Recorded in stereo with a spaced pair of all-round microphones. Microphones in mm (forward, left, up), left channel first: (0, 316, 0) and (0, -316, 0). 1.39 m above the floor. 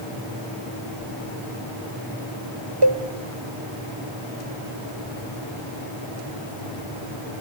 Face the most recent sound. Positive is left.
turn(degrees=-40)  # may be behind; listen again after turning